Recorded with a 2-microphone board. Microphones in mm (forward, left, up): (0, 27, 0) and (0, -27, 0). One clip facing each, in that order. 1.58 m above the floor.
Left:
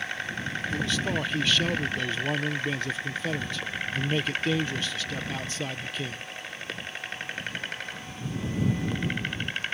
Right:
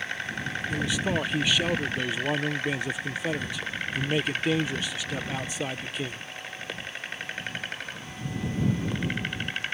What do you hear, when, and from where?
0.7 s a man speaking: 15° right (ahead or behind)